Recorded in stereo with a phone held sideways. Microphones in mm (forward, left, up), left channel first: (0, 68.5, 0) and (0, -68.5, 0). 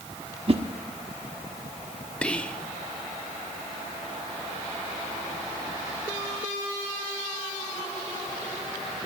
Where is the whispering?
10° left (ahead or behind), 0.7 m.